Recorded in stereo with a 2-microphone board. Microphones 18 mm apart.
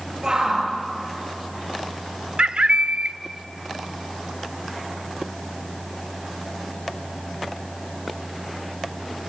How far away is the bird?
About 0.6 m.